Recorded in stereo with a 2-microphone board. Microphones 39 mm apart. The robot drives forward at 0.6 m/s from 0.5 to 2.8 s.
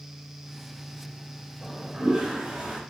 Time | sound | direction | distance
1.6 | a toilet flushing | 25° right (ahead or behind) | 0.8 m